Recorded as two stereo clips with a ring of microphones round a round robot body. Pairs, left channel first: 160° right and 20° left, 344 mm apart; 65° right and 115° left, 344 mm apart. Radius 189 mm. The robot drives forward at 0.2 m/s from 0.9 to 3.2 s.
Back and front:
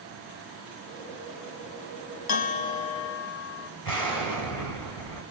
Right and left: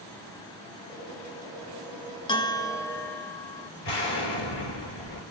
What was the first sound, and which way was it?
A bell, 145° right.